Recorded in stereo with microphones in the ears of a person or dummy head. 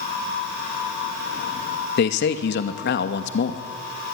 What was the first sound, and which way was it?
A man speaking, 55° left (ahead or behind).